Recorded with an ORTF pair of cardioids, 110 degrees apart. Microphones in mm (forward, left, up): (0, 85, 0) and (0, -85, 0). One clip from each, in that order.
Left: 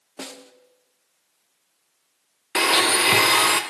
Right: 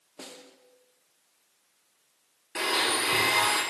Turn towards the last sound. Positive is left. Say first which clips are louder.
# left 8 dB
turn(degrees=60)